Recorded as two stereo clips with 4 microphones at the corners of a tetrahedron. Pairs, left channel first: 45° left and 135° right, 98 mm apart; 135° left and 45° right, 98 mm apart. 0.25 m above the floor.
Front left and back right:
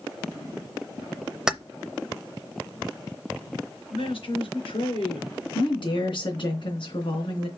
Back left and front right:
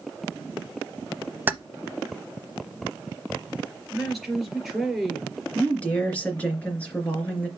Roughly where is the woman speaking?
Ahead left.